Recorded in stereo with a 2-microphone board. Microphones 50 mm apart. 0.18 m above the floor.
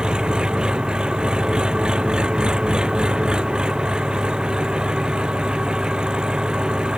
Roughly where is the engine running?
Centre.